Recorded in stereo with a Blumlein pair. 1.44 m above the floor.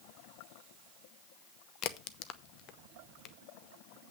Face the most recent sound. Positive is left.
turn(degrees=35)